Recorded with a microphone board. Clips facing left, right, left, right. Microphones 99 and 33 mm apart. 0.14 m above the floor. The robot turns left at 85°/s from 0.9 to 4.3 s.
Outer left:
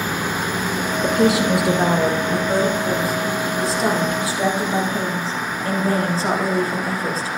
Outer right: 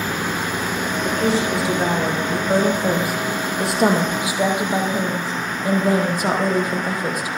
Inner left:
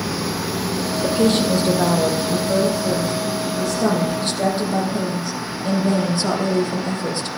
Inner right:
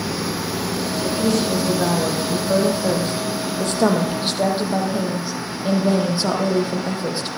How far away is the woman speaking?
About 5.5 m.